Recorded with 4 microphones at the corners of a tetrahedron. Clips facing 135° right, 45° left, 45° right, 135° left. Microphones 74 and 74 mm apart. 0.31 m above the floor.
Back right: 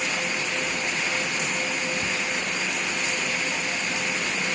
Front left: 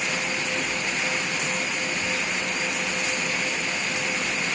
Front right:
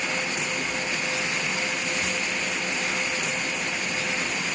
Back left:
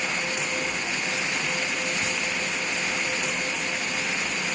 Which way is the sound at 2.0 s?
155° right.